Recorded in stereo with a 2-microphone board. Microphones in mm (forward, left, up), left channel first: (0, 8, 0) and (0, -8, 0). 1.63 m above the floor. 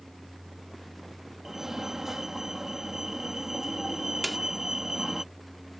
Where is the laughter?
I don't hear laughter.